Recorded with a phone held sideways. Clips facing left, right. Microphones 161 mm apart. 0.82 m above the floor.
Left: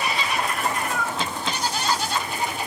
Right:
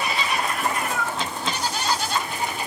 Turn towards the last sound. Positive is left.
turn(degrees=60)  # may be behind; listen again after turning